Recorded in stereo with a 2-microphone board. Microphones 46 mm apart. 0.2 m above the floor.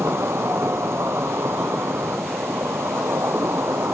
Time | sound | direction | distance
0.0 | an insect | 65° right (ahead or behind) | 1.1 m